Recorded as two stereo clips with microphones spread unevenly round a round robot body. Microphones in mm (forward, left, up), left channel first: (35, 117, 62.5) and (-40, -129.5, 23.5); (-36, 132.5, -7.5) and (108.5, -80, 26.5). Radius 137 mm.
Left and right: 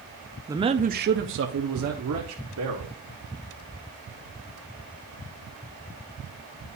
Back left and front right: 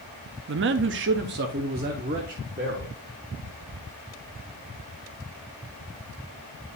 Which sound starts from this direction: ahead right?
A man speaking, at 0.5 s.